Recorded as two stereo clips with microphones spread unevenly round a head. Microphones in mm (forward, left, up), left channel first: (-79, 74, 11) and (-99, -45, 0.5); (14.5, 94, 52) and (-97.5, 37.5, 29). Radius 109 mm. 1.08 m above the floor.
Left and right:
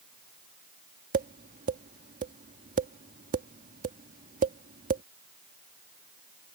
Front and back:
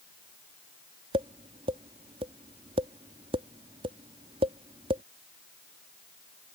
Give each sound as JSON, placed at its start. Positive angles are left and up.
{"t": 1.1, "sound": "tapping", "azimuth_deg": -95}